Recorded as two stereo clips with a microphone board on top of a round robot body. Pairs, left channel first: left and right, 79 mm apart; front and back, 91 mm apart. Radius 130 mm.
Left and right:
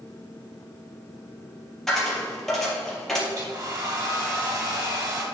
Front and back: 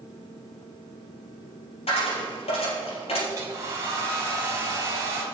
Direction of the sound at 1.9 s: 5° left.